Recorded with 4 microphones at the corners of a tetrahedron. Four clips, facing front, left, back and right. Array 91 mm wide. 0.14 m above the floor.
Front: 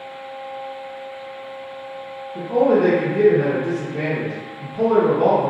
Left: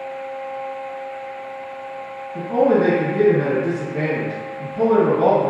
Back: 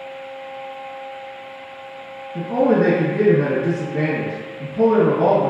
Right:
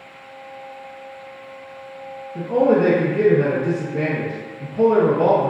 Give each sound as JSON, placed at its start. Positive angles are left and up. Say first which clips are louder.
{"t": 2.4, "sound": "a man speaking", "louder": "even, even", "azimuth_deg": 155, "distance_m": 1.8}